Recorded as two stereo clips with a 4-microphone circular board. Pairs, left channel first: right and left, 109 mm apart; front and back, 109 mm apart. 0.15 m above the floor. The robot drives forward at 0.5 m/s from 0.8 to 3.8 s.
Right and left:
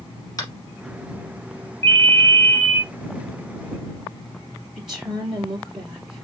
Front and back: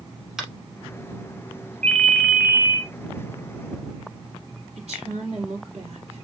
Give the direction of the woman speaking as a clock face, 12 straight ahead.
6 o'clock.